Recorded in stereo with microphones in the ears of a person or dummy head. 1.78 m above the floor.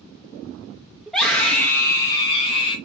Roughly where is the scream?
Centre.